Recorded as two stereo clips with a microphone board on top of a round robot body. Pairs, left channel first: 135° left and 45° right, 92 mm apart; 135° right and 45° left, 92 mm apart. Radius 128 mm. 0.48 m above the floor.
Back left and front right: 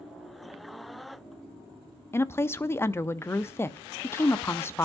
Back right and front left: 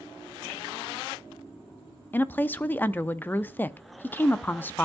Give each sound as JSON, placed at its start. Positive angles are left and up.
{"t": 2.1, "sound": "a woman speaking", "azimuth_deg": 170, "distance_m": 0.8}